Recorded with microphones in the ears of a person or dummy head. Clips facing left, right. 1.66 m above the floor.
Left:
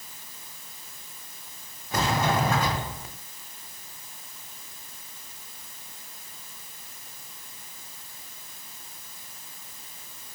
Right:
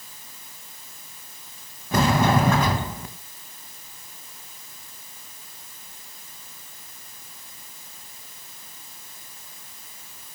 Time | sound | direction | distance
1.9 | a sliding door | 60° right (ahead or behind) | 2.5 m